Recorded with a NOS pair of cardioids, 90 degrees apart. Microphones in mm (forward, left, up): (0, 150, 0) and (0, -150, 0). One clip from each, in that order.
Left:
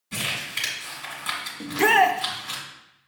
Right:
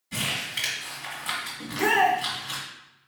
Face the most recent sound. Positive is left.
turn(degrees=30)